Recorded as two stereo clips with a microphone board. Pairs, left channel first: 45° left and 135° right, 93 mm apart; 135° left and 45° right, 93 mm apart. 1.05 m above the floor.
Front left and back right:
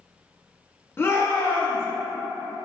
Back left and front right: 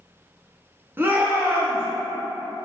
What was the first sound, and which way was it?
A shout, 5° left.